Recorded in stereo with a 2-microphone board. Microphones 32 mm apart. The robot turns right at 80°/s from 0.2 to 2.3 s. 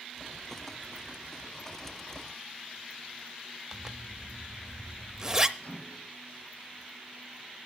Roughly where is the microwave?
Left.